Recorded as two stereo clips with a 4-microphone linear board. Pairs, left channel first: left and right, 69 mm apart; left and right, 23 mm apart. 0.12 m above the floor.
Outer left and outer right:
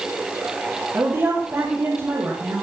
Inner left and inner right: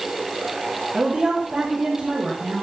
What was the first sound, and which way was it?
A woman speaking, 30° right (ahead or behind).